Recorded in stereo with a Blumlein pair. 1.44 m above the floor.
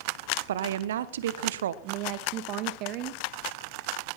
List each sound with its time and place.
0.5 s a woman speaking: 60° right, 1.0 m
1.8 s a woman speaking: 40° right, 1.3 m